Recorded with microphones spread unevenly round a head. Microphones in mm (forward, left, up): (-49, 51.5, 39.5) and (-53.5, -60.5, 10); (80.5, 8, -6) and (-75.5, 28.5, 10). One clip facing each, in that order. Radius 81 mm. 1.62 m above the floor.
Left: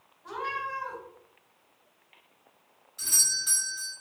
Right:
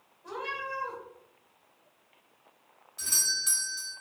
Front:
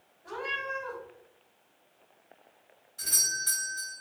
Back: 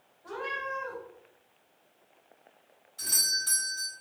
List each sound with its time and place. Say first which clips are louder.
0.2 s a cat meowing: left 3 dB, back 1 dB; 130° right, 1.4 m
3.0 s a doorbell: right 1 dB, even; 95° right, 1.5 m